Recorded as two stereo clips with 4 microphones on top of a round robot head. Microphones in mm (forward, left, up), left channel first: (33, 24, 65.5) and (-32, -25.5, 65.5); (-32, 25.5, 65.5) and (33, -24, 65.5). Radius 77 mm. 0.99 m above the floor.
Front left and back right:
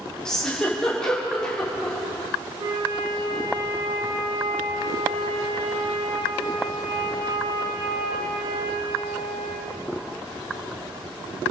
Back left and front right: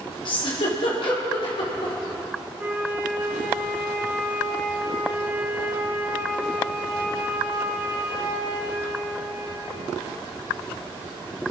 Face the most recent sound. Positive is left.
turn(degrees=-105)